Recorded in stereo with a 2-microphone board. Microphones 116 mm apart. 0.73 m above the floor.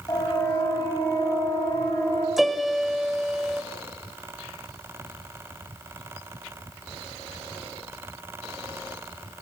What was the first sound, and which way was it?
A siren, 30° left (ahead or behind).